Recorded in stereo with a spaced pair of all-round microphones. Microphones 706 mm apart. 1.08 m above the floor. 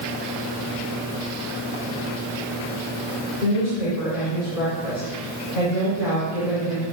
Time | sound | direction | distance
3.4 | a woman speaking | 70° left (ahead or behind) | 3.5 m